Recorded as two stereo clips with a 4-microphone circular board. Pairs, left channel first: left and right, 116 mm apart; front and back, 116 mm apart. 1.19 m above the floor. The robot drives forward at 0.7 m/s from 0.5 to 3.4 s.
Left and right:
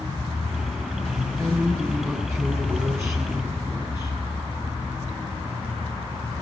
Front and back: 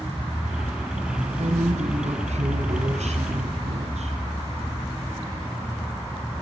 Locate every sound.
1.4 s a woman speaking: 155° right, 6.5 m; by 4.2 s 160° right, 8 m